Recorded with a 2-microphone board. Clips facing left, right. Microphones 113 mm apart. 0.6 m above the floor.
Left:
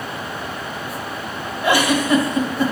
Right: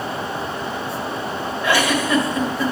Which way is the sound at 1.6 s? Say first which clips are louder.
Left 2 dB; 15° left (ahead or behind).